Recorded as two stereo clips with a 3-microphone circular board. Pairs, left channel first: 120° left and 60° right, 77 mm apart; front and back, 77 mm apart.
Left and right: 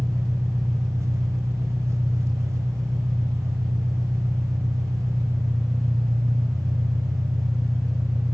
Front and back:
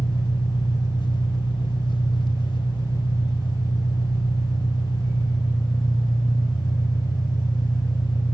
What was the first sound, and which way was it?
An engine running, 5° right.